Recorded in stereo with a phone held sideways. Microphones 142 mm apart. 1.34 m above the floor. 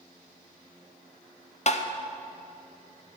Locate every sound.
1.7 s tapping: 50° left (ahead or behind), 0.6 m